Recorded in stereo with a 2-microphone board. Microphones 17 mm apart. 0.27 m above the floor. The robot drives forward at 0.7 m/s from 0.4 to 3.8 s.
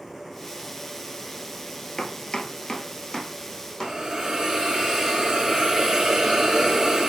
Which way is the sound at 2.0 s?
75° left (ahead or behind).